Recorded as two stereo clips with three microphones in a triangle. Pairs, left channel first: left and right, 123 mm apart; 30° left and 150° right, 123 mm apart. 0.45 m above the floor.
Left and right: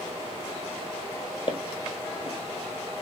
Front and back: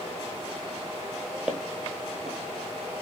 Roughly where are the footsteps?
Behind left.